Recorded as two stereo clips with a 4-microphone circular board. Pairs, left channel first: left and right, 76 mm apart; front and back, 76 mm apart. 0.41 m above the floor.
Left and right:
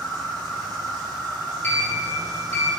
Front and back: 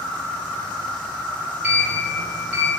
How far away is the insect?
About 1.3 m.